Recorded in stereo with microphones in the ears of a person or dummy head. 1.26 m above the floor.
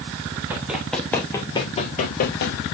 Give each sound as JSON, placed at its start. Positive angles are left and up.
{"t": 0.5, "sound": "running footsteps", "side_deg": -10, "distance_m": 2.0}